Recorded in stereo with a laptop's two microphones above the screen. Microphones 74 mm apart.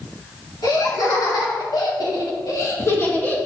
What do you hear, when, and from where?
0.6 s laughter: 65° left (ahead or behind), 3 m; by 3.4 s 20° left (ahead or behind), 1.6 m